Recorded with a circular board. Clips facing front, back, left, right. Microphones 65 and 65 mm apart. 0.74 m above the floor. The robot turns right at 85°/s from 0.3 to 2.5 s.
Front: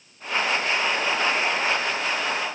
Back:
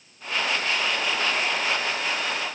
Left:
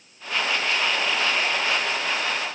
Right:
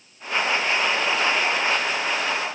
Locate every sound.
Only background noise.